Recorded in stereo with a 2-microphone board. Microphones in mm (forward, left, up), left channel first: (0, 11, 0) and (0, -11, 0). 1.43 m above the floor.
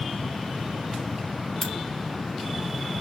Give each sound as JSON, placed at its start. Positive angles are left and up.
{"t": 1.6, "sound": "a crack", "side_deg": 15, "distance_m": 2.5}